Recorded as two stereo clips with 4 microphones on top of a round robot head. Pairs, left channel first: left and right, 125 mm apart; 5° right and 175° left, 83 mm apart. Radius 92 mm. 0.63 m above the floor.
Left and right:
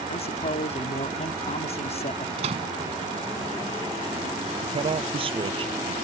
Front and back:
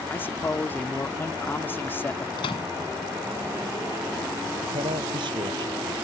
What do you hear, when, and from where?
0.1 s a man speaking: 60° left
2.4 s a microwave: 40° right
4.6 s a man speaking: 135° right